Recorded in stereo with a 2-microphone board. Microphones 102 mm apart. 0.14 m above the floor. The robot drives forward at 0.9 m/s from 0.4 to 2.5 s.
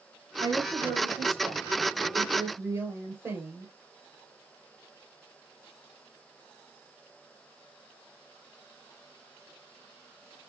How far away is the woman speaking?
About 3.5 m.